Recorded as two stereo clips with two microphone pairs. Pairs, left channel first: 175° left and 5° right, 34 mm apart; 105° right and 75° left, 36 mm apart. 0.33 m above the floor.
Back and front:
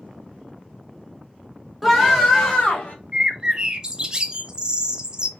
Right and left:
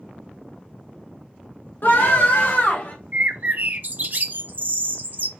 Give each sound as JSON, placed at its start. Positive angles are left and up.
{"t": 1.8, "sound": "a scream", "azimuth_deg": -100, "distance_m": 2.0}
{"t": 3.1, "sound": "a bird", "azimuth_deg": 55, "distance_m": 0.6}